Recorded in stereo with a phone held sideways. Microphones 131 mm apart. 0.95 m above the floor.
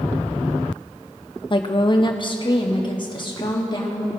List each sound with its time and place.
1.5 s a woman speaking: 40° left (ahead or behind), 0.7 m; by 4.1 s 35° left (ahead or behind), 1.9 m